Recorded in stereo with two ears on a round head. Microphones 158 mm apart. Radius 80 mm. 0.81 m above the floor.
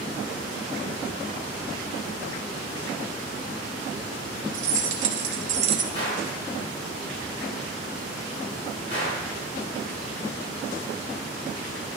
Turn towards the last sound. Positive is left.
turn(degrees=40)  # may be behind; listen again after turning